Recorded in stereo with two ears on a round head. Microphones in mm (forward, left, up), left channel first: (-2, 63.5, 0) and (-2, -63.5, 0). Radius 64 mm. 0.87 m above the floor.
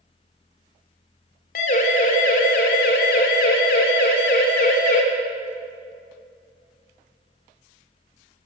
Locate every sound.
1.6 s a siren: 55° left (ahead or behind), 4 m; by 5.0 s 65° left (ahead or behind), 4 m